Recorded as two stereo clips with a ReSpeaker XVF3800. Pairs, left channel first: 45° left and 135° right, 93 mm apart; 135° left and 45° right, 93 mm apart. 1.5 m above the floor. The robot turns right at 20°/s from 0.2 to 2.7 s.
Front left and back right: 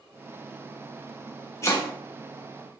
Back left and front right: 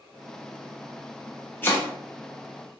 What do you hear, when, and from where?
1.6 s chopping: 80° left, 1.0 m; by 1.9 s 85° left, 1.0 m